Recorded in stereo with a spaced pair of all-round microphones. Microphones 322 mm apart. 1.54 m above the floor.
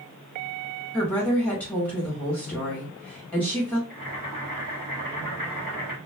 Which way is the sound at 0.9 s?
5° left (ahead or behind).